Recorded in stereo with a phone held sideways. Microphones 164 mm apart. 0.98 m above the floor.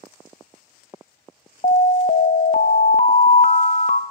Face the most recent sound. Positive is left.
turn(degrees=45)  # may be behind; listen again after turning